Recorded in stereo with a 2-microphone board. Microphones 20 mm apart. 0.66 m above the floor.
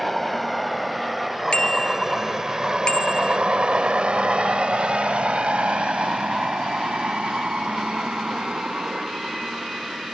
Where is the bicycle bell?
40° left (ahead or behind).